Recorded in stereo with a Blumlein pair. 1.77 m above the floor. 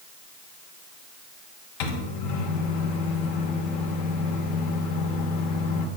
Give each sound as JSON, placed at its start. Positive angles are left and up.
{"t": 1.8, "sound": "a microwave", "azimuth_deg": 50, "distance_m": 1.3}